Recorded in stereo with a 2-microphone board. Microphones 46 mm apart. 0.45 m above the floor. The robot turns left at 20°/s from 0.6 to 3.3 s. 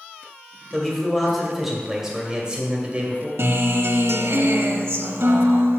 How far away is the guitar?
About 0.7 m.